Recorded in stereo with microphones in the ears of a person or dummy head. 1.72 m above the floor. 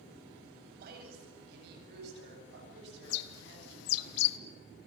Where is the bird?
65° left (ahead or behind), 0.7 m.